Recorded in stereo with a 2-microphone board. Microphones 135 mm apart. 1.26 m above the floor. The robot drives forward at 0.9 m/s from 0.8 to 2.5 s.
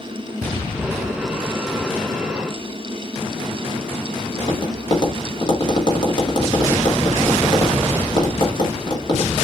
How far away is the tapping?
About 2 m.